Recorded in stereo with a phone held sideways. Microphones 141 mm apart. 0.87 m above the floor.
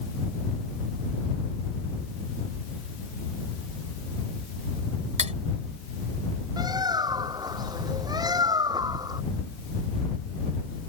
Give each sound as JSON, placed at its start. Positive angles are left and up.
{"t": 5.2, "sound": "cutlery clinking", "side_deg": -55}
{"t": 6.6, "sound": "a bird", "side_deg": -30}